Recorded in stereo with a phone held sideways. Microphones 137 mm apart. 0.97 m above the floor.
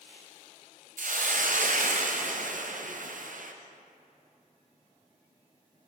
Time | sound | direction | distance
1.0 | a hiss | 65° right (ahead or behind) | 0.5 m